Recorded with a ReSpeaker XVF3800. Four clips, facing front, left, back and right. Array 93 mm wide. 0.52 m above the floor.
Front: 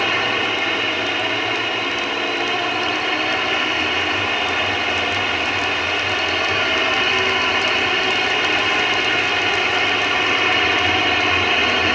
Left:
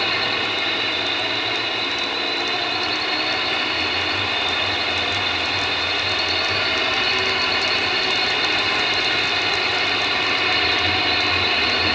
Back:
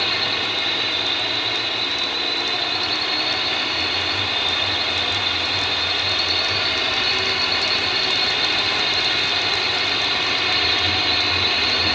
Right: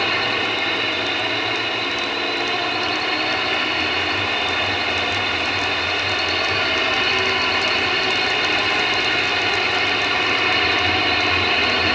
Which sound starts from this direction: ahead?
A drone, at 0.0 s.